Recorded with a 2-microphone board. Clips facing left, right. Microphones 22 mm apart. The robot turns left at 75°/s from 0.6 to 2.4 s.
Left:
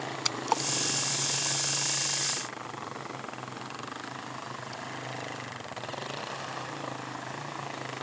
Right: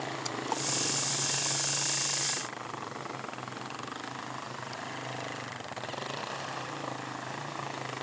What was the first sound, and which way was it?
A splash, 40° left (ahead or behind).